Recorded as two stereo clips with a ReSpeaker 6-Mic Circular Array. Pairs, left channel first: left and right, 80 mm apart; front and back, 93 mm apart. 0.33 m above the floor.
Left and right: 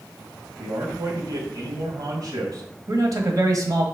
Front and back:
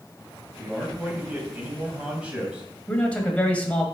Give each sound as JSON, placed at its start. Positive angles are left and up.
{"t": 0.6, "sound": "a man speaking", "azimuth_deg": -105, "distance_m": 2.0}
{"t": 2.9, "sound": "a man speaking", "azimuth_deg": -70, "distance_m": 1.5}